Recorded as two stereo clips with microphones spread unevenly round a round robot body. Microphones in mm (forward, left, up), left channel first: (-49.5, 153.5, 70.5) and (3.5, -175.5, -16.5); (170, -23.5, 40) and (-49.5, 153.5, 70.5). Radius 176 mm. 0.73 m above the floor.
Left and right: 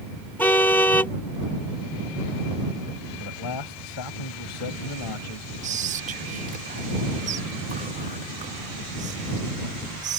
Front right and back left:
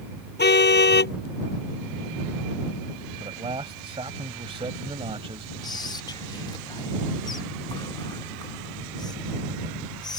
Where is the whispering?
95° right.